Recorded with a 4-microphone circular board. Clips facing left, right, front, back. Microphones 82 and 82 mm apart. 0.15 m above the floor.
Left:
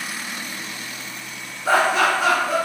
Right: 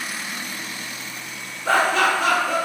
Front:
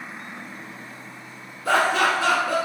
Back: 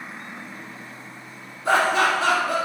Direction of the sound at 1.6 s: 155° left.